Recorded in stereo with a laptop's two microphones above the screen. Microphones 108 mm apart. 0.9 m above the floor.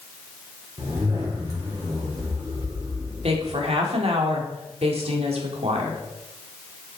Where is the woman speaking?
65° right (ahead or behind), 1.9 m.